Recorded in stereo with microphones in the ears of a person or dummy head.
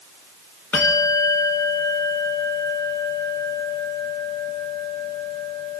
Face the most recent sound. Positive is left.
turn(degrees=10)  # may be behind; listen again after turning